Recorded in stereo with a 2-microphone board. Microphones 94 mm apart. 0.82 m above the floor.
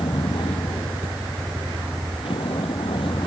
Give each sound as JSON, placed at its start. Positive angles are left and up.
{"t": 0.0, "sound": "a vehicle", "side_deg": 70}